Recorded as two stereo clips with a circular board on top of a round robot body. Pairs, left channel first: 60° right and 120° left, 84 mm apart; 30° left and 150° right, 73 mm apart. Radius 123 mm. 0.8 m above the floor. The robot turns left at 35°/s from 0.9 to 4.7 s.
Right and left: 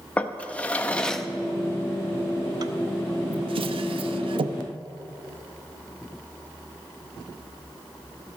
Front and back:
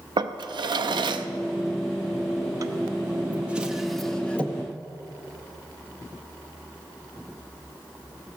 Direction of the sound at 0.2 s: 135° right.